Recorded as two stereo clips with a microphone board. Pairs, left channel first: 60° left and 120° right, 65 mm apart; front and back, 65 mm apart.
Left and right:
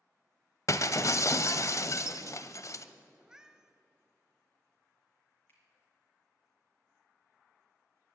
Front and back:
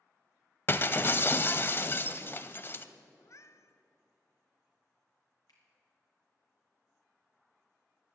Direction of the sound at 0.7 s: 45° left.